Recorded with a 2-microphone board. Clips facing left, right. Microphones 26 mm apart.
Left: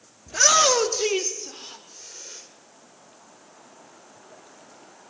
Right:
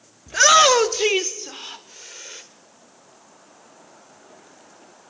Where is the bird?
No bird in this recording.